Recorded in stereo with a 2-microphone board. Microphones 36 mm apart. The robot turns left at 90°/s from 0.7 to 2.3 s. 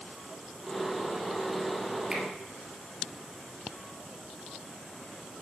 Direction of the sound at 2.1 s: 20° right (ahead or behind).